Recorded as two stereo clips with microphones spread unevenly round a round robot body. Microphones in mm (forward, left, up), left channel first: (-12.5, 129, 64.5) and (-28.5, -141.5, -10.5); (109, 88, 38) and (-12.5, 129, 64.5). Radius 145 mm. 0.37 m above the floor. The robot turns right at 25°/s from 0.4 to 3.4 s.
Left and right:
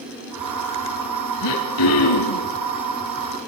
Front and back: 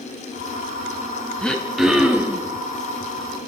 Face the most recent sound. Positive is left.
turn(degrees=110)